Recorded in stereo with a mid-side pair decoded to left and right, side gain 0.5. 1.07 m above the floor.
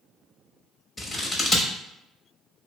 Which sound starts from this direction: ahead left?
Scissors, at 1.0 s.